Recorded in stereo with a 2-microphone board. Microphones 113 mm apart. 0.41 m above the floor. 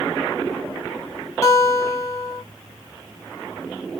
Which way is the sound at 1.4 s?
30° left (ahead or behind).